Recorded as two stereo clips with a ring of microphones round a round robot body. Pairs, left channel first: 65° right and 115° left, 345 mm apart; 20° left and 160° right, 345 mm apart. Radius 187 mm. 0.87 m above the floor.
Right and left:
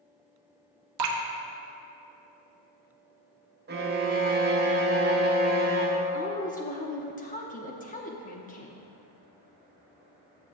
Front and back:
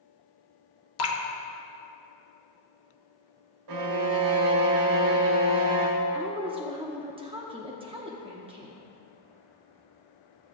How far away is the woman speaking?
About 0.8 m.